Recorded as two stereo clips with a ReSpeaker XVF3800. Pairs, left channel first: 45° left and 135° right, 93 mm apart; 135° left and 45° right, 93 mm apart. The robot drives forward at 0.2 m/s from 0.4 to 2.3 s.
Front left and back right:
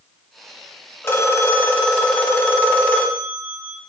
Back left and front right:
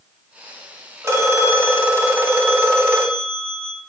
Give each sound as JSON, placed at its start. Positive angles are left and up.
{"t": 1.0, "sound": "a phone ringing", "azimuth_deg": -5, "distance_m": 0.8}